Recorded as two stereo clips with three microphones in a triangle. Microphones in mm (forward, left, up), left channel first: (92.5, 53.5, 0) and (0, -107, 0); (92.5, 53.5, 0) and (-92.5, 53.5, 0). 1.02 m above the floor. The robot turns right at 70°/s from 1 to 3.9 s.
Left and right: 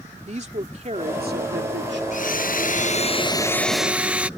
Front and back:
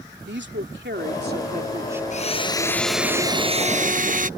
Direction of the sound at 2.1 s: 35° left.